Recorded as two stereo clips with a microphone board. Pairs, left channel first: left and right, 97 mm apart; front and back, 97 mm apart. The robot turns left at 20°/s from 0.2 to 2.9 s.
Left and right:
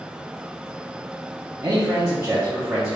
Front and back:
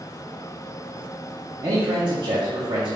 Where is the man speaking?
145° right, 1.0 m; by 3.0 s 170° right, 1.0 m.